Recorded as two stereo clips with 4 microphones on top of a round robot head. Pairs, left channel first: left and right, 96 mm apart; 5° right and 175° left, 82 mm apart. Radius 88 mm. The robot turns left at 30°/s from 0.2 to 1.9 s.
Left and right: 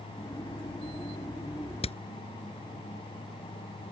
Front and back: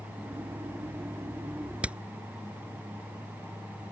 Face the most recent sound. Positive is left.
turn(degrees=100)